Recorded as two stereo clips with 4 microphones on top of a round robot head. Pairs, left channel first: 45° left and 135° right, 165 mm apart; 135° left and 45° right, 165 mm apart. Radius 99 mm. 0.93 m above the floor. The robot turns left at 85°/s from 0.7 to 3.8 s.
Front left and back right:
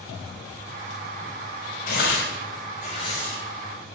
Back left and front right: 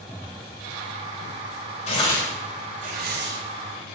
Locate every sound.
1.9 s tearing paper: 85° left, 3.5 m; by 3.4 s 45° right, 3.5 m